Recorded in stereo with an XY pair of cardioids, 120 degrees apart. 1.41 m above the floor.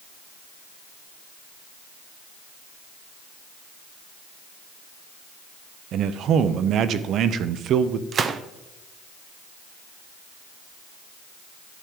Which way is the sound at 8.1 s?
40° right.